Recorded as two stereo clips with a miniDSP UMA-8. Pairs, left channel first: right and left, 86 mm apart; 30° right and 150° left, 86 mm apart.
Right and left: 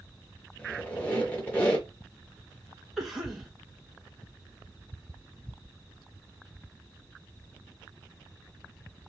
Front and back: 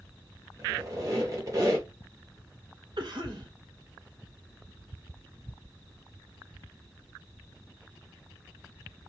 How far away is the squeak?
About 1.8 m.